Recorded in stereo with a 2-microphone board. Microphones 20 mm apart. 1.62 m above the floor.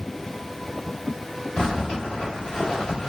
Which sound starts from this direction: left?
A zipper, at 1.6 s.